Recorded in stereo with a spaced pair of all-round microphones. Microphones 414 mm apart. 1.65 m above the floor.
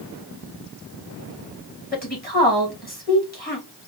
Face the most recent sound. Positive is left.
turn(degrees=20)  # may be behind; listen again after turning